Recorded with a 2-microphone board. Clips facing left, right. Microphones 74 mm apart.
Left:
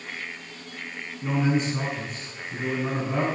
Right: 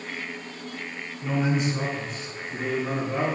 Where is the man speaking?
35° left (ahead or behind), 6 m; by 3.3 s 65° left (ahead or behind), 5.5 m.